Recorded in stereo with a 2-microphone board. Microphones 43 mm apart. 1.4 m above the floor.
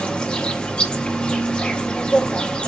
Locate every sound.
0.0 s an insect: 25° left (ahead or behind), 0.9 m